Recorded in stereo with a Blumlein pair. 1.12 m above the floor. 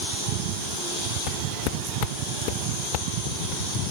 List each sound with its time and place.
1.3 s footsteps: 40° left